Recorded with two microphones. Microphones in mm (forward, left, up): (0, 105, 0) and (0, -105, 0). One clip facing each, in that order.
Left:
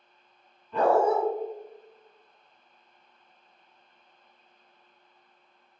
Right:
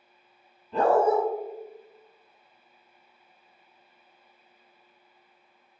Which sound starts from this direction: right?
A dog barking, at 0.7 s.